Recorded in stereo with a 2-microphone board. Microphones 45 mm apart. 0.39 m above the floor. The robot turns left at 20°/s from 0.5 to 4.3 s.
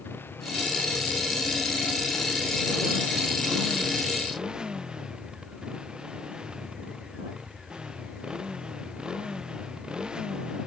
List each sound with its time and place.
0.0 s a motorcycle: 55° left; by 10.7 s 20° right